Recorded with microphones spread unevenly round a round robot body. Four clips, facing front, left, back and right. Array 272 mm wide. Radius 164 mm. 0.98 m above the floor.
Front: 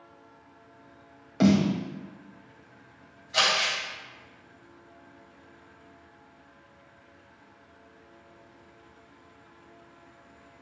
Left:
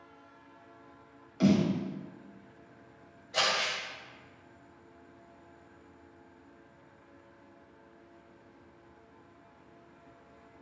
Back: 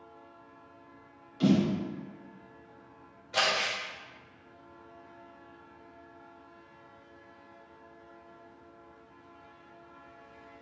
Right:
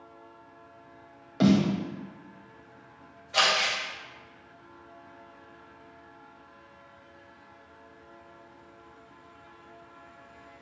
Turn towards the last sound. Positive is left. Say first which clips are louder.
# right 5 dB, front 2 dB
turn(degrees=180)